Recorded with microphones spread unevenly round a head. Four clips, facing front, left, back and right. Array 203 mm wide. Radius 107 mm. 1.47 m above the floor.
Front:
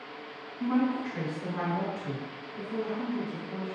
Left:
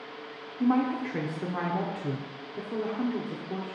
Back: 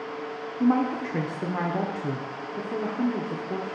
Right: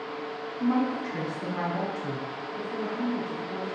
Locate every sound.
0.6 s a woman speaking: 160° left, 0.6 m